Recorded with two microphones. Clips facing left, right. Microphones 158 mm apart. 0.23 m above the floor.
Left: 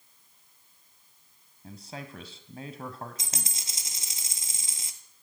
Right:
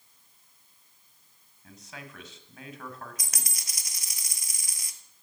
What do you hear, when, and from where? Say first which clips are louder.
1.6 s a man speaking: left 5 dB; 35° left (ahead or behind), 1.5 m
3.2 s a dropped coin: left 4 dB; 25° left (ahead or behind), 1.0 m